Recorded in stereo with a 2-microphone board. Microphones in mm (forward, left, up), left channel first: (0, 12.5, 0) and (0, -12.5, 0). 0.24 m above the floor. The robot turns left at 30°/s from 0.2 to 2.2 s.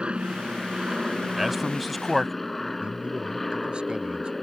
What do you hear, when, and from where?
0.0 s an aircraft: 125° right; by 4.4 s 175° left
1.4 s a man speaking: 10° right (ahead or behind); by 2.3 s 5° left (ahead or behind)
2.8 s a man speaking: 40° right (ahead or behind)